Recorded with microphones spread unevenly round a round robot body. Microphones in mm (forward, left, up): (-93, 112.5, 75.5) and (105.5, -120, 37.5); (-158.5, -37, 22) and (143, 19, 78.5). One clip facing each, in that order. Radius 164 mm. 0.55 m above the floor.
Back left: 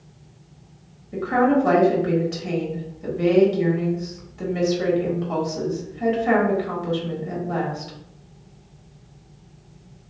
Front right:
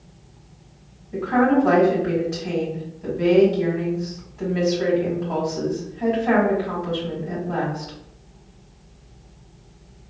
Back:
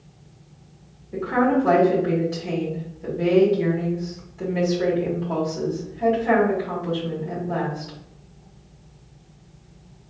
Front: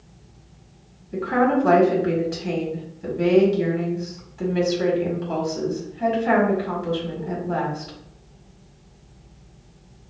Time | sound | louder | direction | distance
1.1 | a woman speaking | front right 1 dB, even | 85° left | 1.8 m